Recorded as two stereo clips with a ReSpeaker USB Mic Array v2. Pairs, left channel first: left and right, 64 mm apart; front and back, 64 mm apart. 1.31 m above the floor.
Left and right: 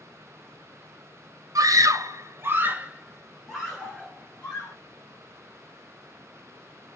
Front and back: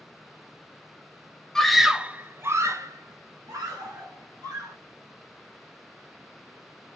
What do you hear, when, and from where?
1.6 s a scream: 80° right, 0.6 m; by 4.8 s 175° left, 1.6 m